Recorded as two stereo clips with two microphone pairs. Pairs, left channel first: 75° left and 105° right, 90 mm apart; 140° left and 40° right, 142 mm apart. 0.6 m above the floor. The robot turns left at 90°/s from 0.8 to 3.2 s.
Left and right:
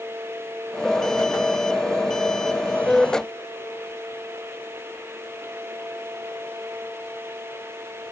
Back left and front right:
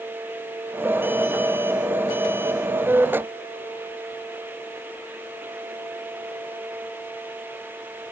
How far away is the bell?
No bell in this recording.